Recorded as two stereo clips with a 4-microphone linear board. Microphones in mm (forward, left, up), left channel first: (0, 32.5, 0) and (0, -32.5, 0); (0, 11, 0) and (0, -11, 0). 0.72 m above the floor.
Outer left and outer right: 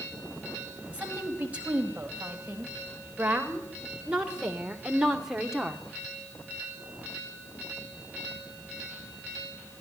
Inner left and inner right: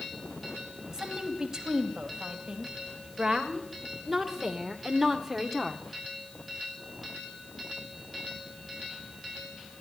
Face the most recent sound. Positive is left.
turn(degrees=-5)  # may be behind; listen again after turning